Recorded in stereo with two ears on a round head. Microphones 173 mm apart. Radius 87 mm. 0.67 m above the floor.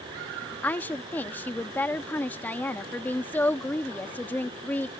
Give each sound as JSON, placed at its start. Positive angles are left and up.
{"t": 0.6, "sound": "a woman speaking", "side_deg": 10}